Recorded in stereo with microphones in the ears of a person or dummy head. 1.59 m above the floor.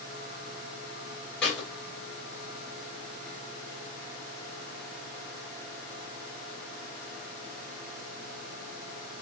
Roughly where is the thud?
Centre.